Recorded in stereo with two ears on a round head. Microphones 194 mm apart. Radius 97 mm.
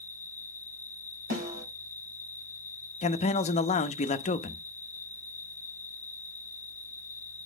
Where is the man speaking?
30° left (ahead or behind), 0.7 m.